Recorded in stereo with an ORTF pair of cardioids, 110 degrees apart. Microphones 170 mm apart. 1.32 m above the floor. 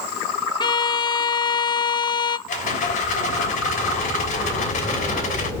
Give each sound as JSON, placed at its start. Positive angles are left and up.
{"t": 0.6, "sound": "a violin", "azimuth_deg": 25, "distance_m": 0.6}
{"t": 2.5, "sound": "a rattle", "azimuth_deg": 50, "distance_m": 3.0}